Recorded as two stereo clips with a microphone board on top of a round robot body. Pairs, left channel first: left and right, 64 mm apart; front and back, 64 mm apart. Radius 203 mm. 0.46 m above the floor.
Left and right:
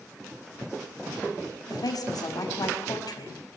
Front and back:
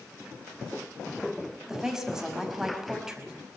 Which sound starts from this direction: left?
A woman speaking, at 1.7 s.